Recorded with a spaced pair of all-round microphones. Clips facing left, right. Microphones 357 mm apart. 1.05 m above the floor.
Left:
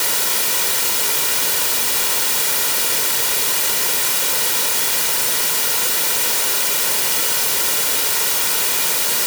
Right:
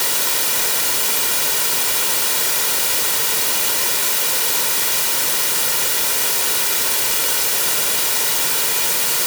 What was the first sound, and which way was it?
Only background noise.